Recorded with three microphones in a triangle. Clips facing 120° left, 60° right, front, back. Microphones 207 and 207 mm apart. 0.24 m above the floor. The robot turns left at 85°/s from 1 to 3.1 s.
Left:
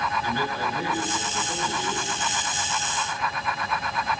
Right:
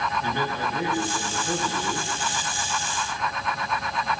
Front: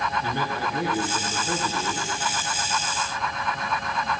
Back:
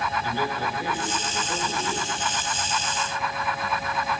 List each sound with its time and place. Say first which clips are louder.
0.2 s a man speaking: even, even; 10° left, 3 m; by 2.1 s 85° right, 3 m